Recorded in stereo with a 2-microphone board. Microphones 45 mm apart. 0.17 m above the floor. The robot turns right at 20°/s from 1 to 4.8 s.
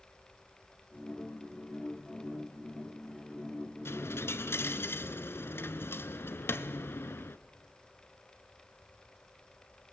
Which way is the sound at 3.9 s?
65° left (ahead or behind).